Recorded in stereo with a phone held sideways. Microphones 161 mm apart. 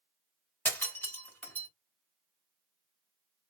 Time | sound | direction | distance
0.7 | breaking glass | 10° left (ahead or behind) | 1.9 m